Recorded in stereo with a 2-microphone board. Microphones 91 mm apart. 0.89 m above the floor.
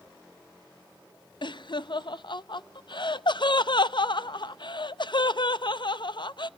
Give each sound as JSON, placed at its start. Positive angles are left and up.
{"t": 1.4, "sound": "laughter", "side_deg": 60, "distance_m": 0.5}